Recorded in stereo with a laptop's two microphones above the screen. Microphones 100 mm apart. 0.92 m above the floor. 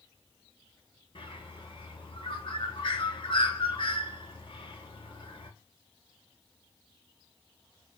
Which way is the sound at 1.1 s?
55° left (ahead or behind).